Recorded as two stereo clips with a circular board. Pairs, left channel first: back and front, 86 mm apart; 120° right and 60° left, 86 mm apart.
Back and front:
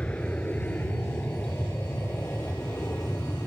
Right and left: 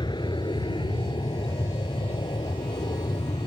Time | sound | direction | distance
0.0 | an aircraft | 105° right | ?